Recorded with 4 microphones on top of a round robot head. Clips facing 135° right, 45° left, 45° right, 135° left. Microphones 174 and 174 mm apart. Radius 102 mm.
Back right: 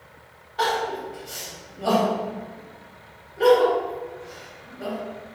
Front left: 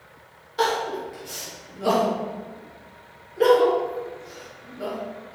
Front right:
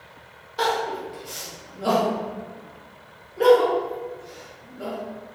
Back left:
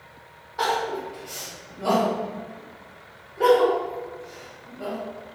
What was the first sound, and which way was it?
Crying, 5° left.